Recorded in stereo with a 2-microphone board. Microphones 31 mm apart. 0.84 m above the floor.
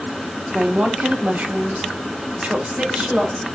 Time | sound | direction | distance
0.5 | a woman speaking | 45° right (ahead or behind) | 0.8 m